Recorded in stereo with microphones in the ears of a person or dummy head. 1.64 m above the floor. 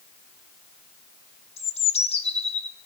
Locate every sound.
1.6 s a bird: 30° left (ahead or behind), 0.6 m